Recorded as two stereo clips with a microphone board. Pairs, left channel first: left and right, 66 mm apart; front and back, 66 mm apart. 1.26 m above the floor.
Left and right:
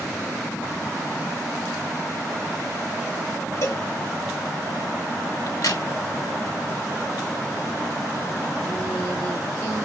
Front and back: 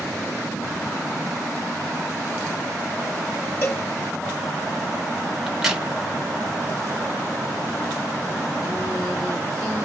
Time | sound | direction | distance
3.6 | a cowbell | 50° left | 1.7 m
5.5 | a crack | 100° left | 1.1 m